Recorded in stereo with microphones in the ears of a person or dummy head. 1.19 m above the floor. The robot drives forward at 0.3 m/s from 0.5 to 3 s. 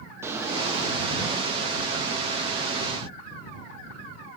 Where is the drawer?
15° right (ahead or behind), 0.6 m; by 1.5 s 10° right (ahead or behind), 0.9 m.